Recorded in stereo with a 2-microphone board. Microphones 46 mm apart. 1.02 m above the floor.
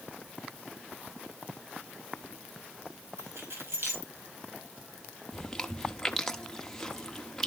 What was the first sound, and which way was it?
Keys jangling, 65° right (ahead or behind).